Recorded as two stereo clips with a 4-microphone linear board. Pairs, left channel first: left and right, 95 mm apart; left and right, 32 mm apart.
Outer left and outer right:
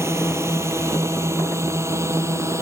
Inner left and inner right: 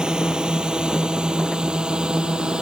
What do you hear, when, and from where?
0.0 s a drone: 25° right (ahead or behind); by 2.6 s 30° right (ahead or behind)